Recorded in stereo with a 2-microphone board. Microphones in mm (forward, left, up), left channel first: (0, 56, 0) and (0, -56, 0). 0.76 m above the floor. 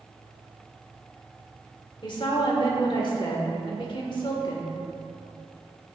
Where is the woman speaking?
50° left (ahead or behind), 2 m.